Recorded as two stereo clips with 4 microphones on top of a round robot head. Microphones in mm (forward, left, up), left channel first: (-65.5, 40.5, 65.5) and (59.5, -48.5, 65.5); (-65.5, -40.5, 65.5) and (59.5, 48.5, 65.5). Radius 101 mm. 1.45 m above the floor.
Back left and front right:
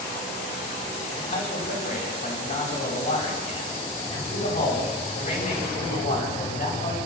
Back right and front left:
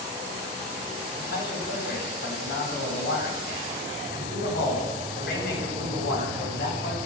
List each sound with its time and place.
1.2 s a man speaking: 170° right, 10 m